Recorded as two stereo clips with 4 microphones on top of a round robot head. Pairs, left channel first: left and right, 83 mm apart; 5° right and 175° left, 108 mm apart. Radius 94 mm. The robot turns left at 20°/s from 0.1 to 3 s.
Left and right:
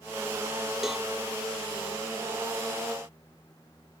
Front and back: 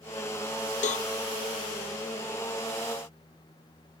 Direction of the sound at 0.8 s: Straight ahead.